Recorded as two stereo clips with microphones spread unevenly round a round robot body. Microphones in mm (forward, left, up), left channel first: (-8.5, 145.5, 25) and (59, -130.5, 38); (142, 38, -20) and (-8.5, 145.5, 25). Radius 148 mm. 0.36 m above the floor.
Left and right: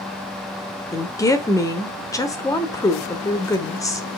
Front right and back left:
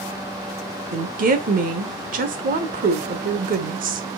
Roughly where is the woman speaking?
Behind.